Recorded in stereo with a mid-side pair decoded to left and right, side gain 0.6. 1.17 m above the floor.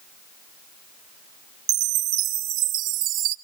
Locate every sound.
1.7 s a chime: 70° right, 0.7 m